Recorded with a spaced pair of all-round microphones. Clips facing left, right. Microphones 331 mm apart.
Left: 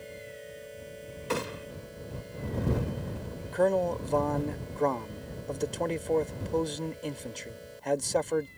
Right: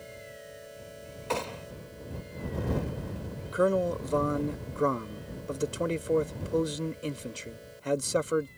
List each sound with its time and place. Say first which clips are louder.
1.3 s a gunshot: left 1 dB; 20° left (ahead or behind)
3.5 s a man speaking: even; 10° right (ahead or behind)